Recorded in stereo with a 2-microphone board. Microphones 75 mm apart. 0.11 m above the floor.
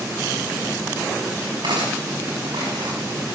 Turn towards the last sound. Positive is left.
turn(degrees=-80)